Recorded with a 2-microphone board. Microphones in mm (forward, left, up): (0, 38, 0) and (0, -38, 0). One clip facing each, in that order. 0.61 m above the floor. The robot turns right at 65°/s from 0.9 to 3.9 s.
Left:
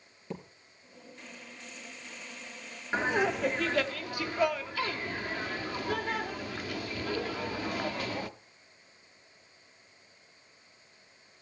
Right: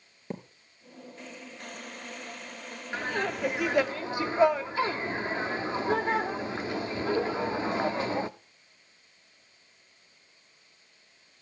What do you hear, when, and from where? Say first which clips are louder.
0.3 s a thud: right 2 dB; 40° right (ahead or behind), 3 m
2.9 s laughter: left 3 dB; 150° left, 0.9 m; by 8.3 s 145° right, 0.9 m